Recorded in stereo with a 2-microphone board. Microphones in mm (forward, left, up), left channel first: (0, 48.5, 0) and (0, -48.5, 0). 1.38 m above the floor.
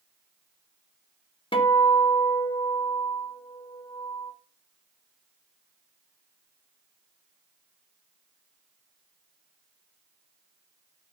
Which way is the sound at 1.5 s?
65° left (ahead or behind).